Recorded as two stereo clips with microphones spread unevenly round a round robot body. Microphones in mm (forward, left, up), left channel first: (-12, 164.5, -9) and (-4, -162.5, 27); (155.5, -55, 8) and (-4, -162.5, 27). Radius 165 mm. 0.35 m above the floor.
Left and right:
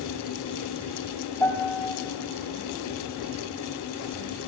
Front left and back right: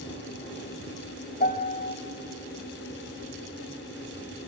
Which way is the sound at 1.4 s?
10° left.